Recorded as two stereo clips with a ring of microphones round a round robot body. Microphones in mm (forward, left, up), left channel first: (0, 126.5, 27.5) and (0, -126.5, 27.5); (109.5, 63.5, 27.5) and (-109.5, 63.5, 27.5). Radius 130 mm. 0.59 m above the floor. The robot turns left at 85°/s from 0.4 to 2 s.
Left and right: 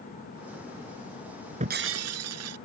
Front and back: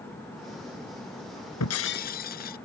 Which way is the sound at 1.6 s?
25° right.